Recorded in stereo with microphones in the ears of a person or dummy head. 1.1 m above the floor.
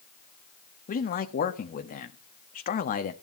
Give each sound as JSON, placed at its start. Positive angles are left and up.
{"t": 0.9, "sound": "a man speaking", "side_deg": 45, "distance_m": 1.3}